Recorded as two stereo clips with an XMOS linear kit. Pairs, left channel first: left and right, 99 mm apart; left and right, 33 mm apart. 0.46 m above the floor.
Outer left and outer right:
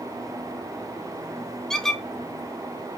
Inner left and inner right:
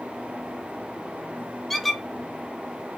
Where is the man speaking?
No man speaking in this recording.